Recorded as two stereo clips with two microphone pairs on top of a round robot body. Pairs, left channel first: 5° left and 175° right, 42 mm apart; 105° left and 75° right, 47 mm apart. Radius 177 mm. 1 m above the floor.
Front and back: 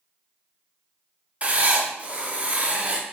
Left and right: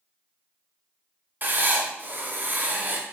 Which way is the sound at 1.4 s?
110° right.